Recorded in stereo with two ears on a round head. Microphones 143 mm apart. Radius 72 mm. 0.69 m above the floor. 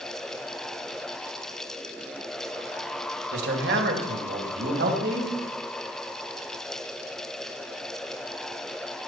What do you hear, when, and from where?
3.3 s a man speaking: 75° right (ahead or behind), 2.5 m; by 5.3 s 80° right, 3.5 m